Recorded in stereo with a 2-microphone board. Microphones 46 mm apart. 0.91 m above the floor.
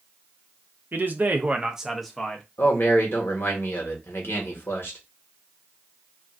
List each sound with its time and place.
0.9 s a man speaking: 55° right (ahead or behind), 0.8 m; by 2.5 s 15° left (ahead or behind), 0.8 m
2.6 s a man speaking: 60° left (ahead or behind), 1.2 m